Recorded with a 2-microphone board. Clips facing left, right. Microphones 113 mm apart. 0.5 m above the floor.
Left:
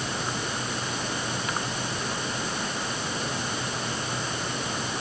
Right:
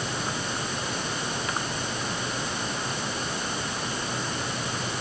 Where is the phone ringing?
No phone ringing in this recording.